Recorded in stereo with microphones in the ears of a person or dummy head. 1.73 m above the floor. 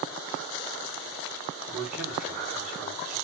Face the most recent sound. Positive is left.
turn(degrees=5)  # may be behind; listen again after turning